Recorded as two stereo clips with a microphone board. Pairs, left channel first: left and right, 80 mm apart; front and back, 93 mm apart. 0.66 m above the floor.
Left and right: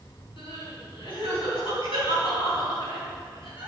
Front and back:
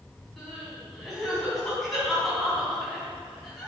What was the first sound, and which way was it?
Crying, 90° left.